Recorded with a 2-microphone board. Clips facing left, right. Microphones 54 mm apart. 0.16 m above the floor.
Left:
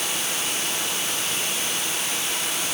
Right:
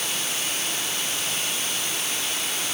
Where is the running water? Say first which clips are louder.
Left 1 dB; 80° left, 8.5 m.